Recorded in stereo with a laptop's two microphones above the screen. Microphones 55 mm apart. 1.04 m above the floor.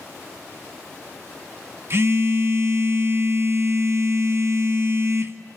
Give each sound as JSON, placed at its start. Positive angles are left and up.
{"t": 1.9, "sound": "a phone buzzing", "side_deg": -50, "distance_m": 1.7}